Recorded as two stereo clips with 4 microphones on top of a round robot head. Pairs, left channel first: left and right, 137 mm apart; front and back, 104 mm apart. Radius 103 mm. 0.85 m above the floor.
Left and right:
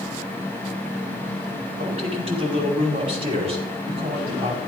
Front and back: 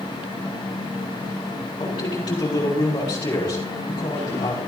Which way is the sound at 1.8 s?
50° right.